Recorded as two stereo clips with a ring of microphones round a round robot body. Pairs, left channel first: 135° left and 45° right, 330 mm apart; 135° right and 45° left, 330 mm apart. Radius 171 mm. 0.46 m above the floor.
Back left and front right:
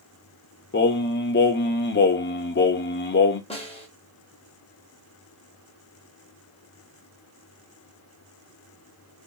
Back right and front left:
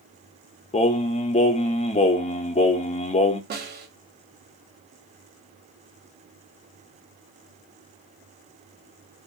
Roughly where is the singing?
Behind.